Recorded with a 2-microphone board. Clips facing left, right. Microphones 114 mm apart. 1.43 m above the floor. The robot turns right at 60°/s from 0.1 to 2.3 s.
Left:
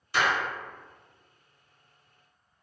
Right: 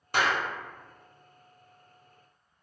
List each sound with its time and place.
0.1 s a clap: 50° right (ahead or behind), 0.8 m; by 0.4 s 70° right (ahead or behind), 0.8 m